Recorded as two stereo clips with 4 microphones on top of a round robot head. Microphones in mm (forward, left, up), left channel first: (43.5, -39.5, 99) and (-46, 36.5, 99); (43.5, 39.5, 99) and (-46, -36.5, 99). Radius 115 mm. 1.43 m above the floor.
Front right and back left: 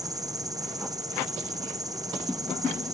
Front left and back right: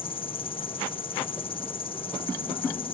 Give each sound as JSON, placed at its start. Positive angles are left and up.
{"t": 0.0, "sound": "an insect", "azimuth_deg": 80}